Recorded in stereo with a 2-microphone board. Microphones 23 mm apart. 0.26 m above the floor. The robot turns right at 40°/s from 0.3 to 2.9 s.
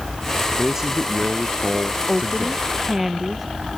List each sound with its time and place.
0.6 s a man speaking: 165° right; by 2.7 s 80° right
2.1 s a woman speaking: 25° left (ahead or behind); by 3.8 s 10° right (ahead or behind)